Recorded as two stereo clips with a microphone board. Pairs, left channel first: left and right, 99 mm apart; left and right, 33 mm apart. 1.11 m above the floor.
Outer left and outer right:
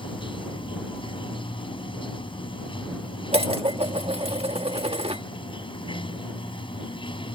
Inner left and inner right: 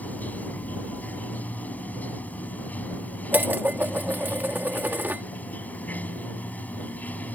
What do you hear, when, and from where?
0.0 s running water: 60° left (ahead or behind)
3.3 s dishes clattering: 85° right